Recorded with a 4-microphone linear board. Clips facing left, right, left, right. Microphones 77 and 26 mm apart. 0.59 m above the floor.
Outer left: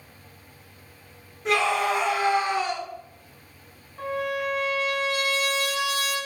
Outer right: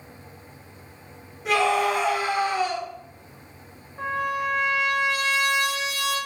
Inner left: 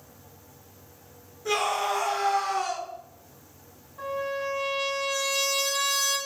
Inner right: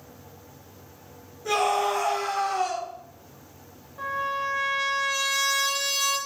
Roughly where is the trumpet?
Centre.